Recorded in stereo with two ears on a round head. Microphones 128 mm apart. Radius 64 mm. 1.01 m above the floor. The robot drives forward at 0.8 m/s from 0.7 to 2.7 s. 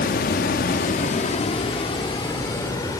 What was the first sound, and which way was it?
Running water, 70° left (ahead or behind).